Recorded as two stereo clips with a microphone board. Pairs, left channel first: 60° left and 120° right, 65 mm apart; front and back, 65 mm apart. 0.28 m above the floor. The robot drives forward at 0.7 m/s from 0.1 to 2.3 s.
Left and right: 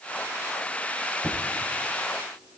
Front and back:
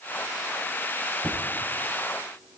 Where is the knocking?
105° left, 8 m; by 2.6 s 110° left, 8 m.